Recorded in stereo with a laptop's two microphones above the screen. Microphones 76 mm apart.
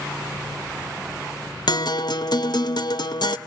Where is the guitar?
65° left (ahead or behind), 0.7 m.